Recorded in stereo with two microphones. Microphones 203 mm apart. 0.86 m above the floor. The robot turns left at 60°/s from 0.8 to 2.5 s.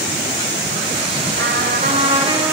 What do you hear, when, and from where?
1.4 s a trumpet: 100° right, 1.9 m; by 2.5 s 165° right, 1.9 m